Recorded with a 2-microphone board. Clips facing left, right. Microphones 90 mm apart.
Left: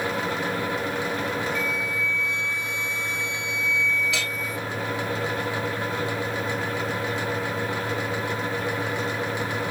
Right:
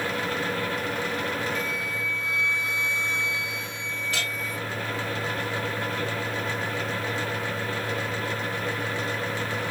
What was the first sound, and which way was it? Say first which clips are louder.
A flute: left 3 dB; 30° right (ahead or behind).